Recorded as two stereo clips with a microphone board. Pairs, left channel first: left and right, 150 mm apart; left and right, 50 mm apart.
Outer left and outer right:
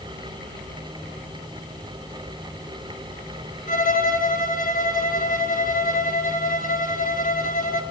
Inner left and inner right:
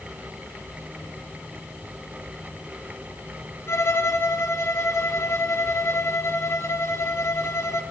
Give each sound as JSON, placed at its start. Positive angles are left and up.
{"t": 3.7, "sound": "a violin", "side_deg": 60, "distance_m": 3.5}